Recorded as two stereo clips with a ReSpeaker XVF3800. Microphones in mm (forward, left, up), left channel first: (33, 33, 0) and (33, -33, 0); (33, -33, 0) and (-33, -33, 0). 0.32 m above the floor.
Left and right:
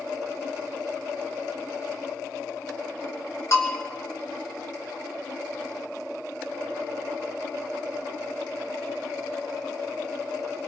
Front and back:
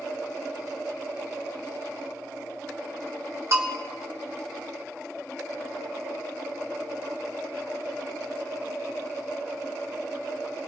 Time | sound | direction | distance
3.5 | a bell | 135° left | 2.5 m